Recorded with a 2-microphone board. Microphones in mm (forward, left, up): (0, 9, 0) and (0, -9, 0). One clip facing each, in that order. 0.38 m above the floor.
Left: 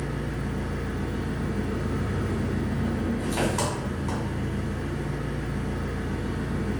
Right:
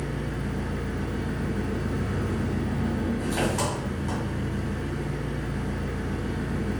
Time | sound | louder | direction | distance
0.0 | an engine running | even | centre (ahead or behind) | 2.5 m